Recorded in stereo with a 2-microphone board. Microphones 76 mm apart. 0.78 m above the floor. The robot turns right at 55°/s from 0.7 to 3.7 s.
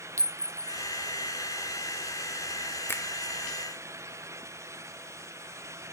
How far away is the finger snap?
About 0.7 m.